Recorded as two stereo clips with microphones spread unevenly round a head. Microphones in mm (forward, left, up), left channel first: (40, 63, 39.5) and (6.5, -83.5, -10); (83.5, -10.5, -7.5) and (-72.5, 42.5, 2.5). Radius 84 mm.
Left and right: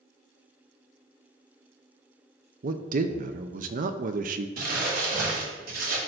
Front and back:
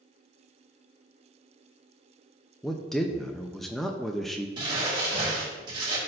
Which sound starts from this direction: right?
A man speaking, at 2.6 s.